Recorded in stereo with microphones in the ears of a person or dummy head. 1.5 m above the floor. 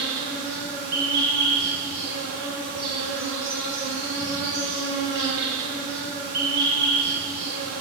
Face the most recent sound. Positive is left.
turn(degrees=-50)  # may be behind; listen again after turning